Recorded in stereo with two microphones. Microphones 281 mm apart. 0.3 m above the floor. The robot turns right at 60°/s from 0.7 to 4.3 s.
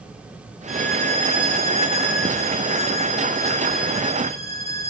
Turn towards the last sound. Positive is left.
turn(degrees=170)